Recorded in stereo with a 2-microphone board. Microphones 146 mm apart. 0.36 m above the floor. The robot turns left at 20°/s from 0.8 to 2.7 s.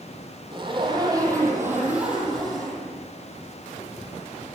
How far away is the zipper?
About 8 m.